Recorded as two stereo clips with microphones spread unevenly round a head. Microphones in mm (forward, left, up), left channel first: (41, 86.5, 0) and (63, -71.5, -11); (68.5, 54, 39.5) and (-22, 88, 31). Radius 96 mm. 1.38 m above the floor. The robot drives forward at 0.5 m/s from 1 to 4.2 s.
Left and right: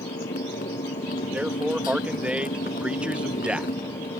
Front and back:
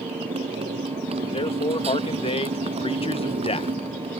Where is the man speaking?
Straight ahead.